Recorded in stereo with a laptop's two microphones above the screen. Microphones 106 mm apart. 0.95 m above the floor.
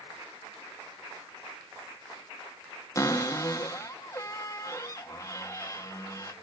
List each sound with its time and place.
3.0 s a cupboard door: 30° left (ahead or behind), 1.4 m